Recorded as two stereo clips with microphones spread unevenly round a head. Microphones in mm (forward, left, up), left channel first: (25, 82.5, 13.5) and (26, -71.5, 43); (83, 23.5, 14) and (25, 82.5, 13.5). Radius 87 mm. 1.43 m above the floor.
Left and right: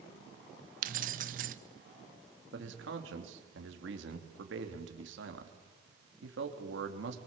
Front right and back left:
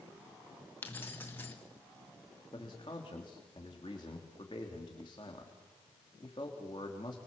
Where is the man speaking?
110° right, 3 m.